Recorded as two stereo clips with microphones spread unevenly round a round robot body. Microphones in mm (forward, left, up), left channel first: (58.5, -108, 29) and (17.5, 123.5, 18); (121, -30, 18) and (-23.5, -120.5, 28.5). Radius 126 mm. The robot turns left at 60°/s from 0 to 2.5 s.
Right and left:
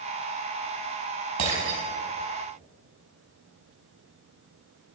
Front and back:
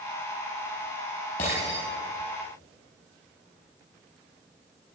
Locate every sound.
1.4 s breaking glass: 95° left, 5 m; by 1.8 s 70° left, 5 m